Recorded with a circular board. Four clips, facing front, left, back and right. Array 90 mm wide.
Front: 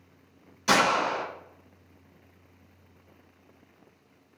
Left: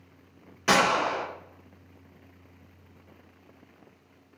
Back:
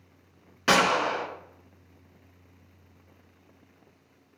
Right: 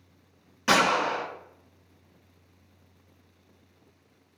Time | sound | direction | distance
0.7 | a gunshot | straight behind | 1.5 m